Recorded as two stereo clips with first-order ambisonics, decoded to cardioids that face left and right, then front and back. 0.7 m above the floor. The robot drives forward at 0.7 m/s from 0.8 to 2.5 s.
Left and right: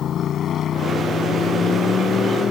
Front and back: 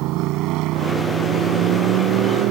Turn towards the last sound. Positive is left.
turn(degrees=155)